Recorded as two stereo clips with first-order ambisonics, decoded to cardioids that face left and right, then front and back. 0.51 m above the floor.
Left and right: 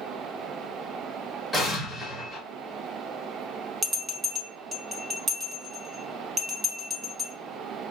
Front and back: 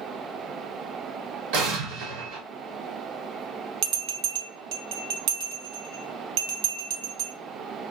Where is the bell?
165° right, 0.8 m.